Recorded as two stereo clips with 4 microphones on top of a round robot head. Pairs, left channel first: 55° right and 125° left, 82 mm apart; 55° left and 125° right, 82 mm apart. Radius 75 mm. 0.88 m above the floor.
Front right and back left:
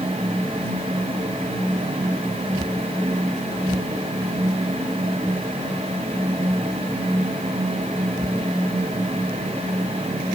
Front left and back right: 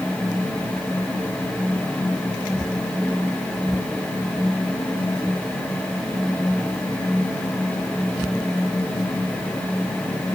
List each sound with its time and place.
Only background noise.